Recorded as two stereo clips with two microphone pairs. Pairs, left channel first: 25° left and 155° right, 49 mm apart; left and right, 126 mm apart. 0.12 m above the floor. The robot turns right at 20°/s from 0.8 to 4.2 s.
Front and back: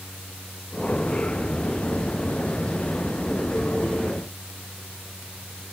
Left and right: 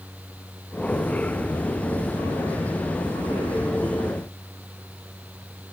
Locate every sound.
Only background noise.